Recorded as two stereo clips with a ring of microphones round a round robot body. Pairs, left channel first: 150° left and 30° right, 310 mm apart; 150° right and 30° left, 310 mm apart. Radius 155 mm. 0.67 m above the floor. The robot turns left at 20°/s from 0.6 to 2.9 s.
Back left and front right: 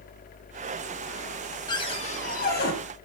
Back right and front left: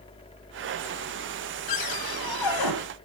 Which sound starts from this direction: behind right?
A cupboard door, at 1.7 s.